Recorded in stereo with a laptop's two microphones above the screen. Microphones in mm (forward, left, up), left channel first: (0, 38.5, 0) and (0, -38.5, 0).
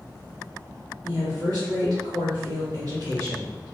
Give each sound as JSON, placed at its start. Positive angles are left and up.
{"t": 1.0, "sound": "a woman speaking", "side_deg": -60, "distance_m": 1.3}